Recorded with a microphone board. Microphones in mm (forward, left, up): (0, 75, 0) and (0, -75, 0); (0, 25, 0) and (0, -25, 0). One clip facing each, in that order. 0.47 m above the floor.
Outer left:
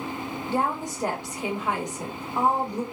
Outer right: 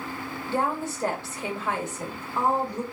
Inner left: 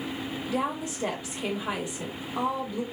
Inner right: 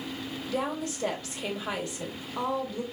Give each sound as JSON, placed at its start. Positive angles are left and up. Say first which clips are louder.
{"t": 0.5, "sound": "a woman speaking", "louder": "even, inner left 1 dB", "side_deg": 15, "distance_m": 1.2}